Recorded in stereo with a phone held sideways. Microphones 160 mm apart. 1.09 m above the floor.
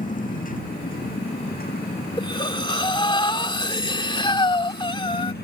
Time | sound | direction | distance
0.0 | a motorcycle | 55° left (ahead or behind) | ?
2.2 | breathing | 30° left (ahead or behind) | ?